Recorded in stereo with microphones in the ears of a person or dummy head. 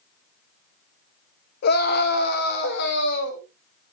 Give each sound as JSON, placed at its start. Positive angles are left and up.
{"t": 1.6, "sound": "a scream", "side_deg": 55, "distance_m": 1.9}